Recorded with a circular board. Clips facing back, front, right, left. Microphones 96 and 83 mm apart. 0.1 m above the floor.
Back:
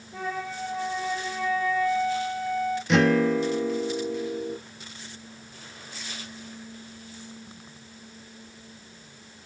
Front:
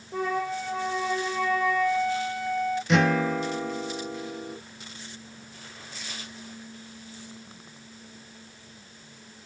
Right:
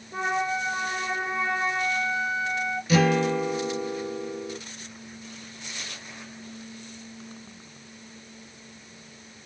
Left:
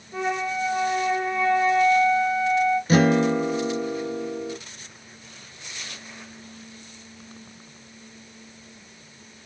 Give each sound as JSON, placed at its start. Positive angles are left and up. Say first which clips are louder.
{"t": 0.1, "sound": "a flute", "louder": "front 4 dB, left 1 dB", "azimuth_deg": -20, "distance_m": 1.1}
{"t": 2.9, "sound": "a guitar", "louder": "back 3 dB, left 1 dB", "azimuth_deg": 90, "distance_m": 1.0}